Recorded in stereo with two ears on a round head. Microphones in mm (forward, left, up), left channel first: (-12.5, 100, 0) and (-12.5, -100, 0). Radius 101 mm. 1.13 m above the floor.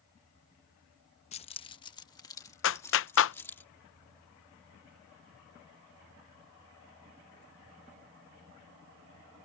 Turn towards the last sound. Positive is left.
turn(degrees=60)  # may be behind; listen again after turning